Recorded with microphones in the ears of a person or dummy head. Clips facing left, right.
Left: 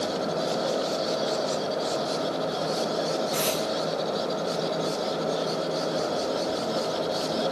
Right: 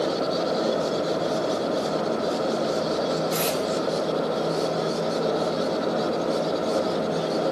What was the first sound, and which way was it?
Tape being pulled, 35° right (ahead or behind).